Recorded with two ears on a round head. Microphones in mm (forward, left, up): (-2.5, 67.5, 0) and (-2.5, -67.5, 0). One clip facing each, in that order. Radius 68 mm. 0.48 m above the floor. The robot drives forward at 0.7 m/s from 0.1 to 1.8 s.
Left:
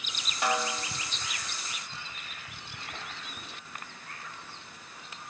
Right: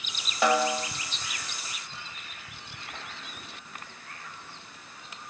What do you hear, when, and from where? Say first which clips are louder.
0.4 s a snare drum: right 6 dB; 65° right (ahead or behind), 2.5 m